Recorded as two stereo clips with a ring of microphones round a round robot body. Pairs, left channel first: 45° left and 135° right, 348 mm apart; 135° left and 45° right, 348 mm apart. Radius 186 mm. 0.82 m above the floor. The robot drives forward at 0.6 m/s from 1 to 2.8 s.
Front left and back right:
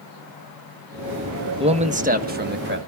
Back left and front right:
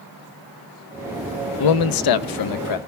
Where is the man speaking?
150° left, 0.9 m; by 2.8 s 165° left, 1.5 m.